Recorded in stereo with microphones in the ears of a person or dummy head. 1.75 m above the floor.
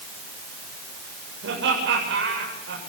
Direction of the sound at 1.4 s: 70° right (ahead or behind).